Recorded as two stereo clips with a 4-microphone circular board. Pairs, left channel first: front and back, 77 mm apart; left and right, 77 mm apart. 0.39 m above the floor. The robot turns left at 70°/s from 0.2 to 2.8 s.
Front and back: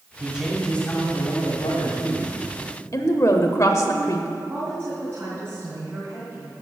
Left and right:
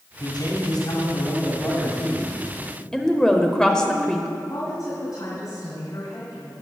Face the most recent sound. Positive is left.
turn(degrees=120)